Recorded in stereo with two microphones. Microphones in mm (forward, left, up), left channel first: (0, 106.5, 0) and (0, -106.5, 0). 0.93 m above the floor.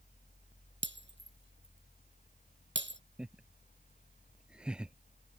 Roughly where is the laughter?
Centre.